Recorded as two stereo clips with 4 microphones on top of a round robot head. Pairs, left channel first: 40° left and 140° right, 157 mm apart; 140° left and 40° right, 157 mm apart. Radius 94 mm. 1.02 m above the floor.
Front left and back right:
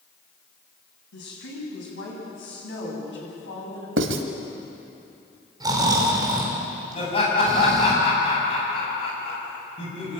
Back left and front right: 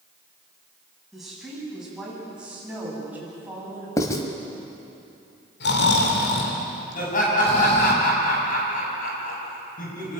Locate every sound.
1.1 s a woman speaking: 45° left, 8.5 m; by 3.9 s 35° left, 8.5 m
4.0 s writing: 150° right, 1.5 m
5.6 s snoring: 155° left, 3 m
7.0 s laughter: 100° left, 7.5 m